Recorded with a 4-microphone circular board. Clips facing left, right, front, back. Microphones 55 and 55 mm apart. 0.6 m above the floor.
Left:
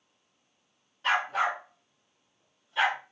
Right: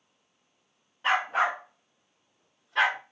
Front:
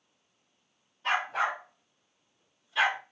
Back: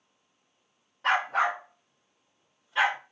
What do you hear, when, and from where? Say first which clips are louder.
1.0 s a dog barking: right 2 dB, back 4 dB; 160° right, 1.5 m; by 3.0 s 120° right, 1.8 m